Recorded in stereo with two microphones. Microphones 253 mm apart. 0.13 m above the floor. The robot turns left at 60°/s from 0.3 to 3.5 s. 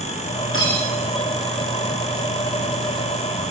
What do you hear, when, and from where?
0.5 s cutlery clinking: 55° left (ahead or behind), 5 m; by 0.8 s 35° left (ahead or behind), 5 m